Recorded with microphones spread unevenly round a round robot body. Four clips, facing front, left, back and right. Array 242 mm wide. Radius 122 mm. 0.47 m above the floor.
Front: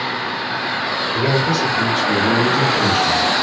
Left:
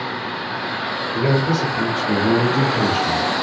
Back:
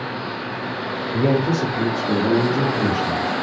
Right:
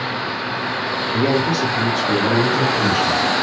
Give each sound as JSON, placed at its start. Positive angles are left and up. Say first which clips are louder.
{"t": 1.1, "sound": "a man speaking", "louder": "right 1 dB, even", "azimuth_deg": -145, "distance_m": 1.1}